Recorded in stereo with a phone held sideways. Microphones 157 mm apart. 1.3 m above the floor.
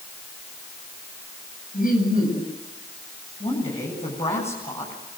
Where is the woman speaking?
45° left (ahead or behind), 8.5 m.